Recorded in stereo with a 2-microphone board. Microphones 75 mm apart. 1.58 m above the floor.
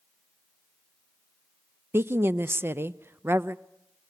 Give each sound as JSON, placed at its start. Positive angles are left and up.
{"t": 1.9, "sound": "a woman speaking", "side_deg": -30, "distance_m": 0.5}